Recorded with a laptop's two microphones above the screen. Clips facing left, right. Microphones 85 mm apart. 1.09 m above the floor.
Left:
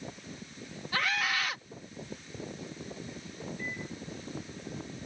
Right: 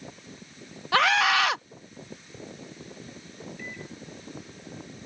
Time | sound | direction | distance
0.9 | a scream | 80° right | ?
3.6 | a microwave | 70° right (ahead or behind) | ?